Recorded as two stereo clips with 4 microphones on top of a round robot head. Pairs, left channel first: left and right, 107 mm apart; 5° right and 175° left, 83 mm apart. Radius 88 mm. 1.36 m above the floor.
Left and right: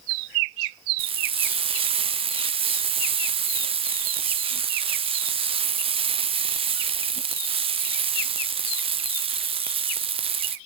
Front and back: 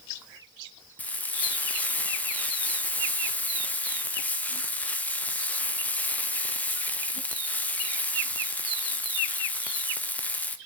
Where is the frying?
75° right, 0.7 m.